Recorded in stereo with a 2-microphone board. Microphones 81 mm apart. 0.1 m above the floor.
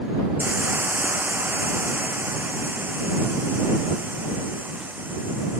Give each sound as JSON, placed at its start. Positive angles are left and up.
{"t": 0.4, "sound": "a hiss", "side_deg": -20}